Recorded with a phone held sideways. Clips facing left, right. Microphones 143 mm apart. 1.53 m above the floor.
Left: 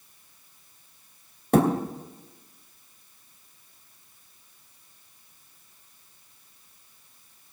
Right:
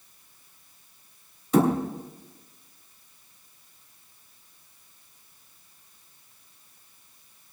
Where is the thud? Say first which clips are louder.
Even; 60° left (ahead or behind), 3 m.